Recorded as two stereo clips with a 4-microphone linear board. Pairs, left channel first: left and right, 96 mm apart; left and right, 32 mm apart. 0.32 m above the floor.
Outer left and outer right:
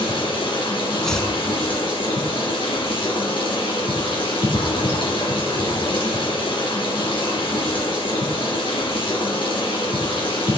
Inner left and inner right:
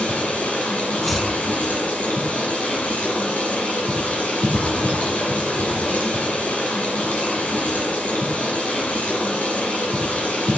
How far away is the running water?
About 3.5 m.